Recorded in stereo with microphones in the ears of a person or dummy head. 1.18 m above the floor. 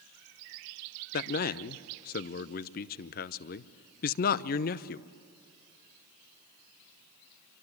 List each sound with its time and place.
1.1 s a man speaking: 40° left (ahead or behind), 0.6 m